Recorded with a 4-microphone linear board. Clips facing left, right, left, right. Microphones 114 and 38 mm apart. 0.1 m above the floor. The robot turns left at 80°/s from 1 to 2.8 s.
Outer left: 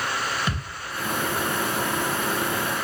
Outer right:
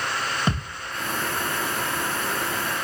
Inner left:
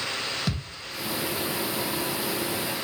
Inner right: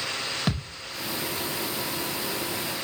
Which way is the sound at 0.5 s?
35° right (ahead or behind).